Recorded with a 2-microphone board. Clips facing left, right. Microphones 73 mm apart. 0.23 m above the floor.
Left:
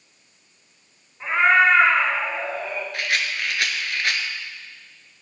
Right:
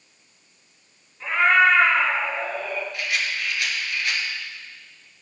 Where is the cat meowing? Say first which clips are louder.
Left 1 dB; 25° left (ahead or behind), 1.7 m.